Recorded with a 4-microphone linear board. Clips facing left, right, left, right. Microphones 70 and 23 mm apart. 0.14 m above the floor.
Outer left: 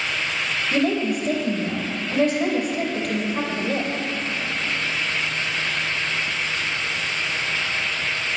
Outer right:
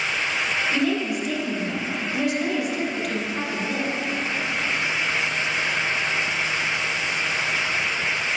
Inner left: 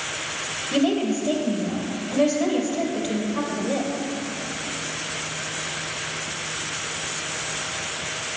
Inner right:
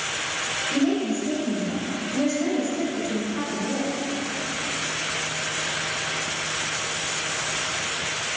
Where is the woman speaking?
40° left (ahead or behind), 3 m.